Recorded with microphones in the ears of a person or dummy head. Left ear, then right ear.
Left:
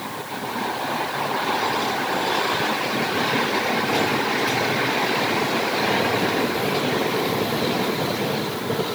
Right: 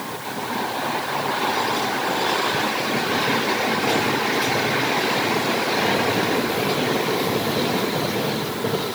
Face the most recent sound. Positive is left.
No sound to turn to.